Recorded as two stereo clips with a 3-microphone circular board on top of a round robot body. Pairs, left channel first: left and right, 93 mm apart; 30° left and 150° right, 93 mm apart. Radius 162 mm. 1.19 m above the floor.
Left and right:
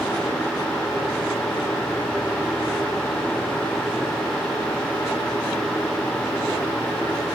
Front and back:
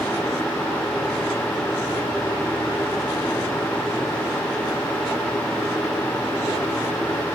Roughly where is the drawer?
No drawer in this recording.